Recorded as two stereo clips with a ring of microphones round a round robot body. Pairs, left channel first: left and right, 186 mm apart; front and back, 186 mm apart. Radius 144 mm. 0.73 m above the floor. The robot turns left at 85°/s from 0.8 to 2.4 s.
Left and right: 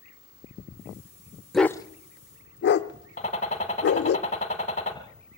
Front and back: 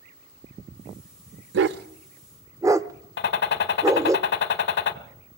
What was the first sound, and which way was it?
A dog barking, straight behind.